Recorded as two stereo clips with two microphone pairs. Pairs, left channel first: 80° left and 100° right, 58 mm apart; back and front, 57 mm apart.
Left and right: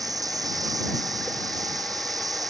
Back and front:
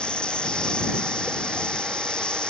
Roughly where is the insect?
Right.